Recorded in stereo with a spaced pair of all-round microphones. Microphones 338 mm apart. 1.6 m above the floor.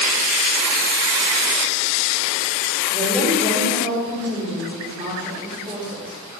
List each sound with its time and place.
2.9 s a woman speaking: 20° right (ahead or behind), 4.5 m